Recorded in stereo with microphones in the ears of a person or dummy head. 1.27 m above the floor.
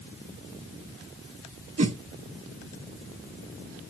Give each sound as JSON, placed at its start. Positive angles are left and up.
{"t": 1.8, "sound": "a whoosh", "side_deg": -30, "distance_m": 0.8}